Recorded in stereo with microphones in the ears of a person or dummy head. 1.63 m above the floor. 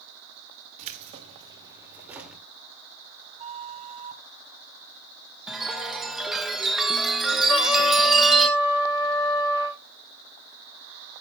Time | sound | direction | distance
0.8 | keys jangling | 40° right (ahead or behind) | 2.5 m
3.4 | a flute | 35° right (ahead or behind) | 1.1 m
5.5 | a chime | 5° right (ahead or behind) | 1.2 m
7.5 | a trumpet | 25° left (ahead or behind) | 1.3 m